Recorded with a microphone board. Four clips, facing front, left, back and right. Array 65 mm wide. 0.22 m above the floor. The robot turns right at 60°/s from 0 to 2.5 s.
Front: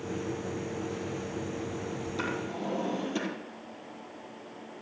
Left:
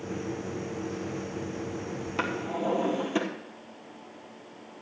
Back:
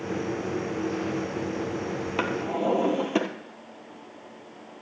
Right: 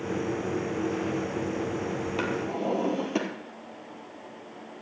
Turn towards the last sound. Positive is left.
turn(degrees=-165)